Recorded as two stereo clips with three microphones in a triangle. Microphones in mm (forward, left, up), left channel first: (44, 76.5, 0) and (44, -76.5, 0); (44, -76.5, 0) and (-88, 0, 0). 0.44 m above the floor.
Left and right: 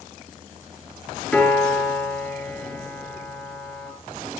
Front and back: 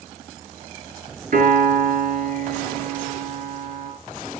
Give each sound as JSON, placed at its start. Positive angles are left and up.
{"t": 1.3, "sound": "a piano", "azimuth_deg": 175, "distance_m": 5.5}